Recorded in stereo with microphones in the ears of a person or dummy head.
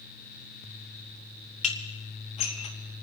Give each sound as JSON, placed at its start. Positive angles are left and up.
{"t": 1.6, "sound": "dishes clattering", "side_deg": 35, "distance_m": 1.4}